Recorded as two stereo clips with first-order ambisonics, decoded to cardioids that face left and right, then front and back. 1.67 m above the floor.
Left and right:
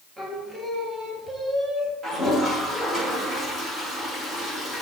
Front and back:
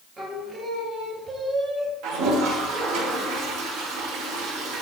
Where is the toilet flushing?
165° right, 1.9 m.